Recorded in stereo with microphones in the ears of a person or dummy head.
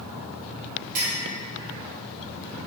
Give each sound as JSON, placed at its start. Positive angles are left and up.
{"t": 0.9, "sound": "a clink", "side_deg": -45, "distance_m": 1.5}